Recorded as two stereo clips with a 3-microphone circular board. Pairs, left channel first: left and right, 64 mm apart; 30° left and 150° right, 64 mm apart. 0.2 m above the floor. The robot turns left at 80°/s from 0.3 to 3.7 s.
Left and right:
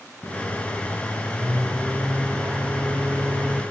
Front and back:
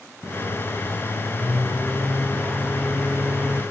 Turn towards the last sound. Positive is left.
turn(degrees=-145)